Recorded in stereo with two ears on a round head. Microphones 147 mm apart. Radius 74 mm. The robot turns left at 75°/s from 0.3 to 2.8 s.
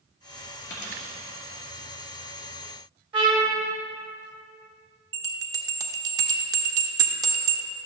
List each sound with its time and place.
0.7 s a dropped coin: 90° left, 2.5 m; by 1.1 s 55° left (ahead or behind), 2.5 m
3.1 s a trumpet: 30° right (ahead or behind), 2 m
5.1 s a bell: 20° right (ahead or behind), 0.7 m